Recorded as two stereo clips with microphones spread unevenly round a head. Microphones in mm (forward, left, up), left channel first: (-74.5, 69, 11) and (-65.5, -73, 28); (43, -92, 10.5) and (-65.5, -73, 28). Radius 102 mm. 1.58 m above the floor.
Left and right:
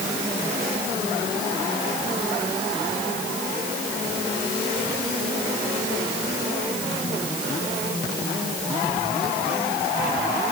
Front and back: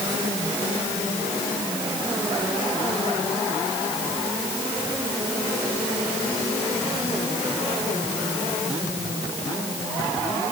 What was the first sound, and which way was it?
Only background noise.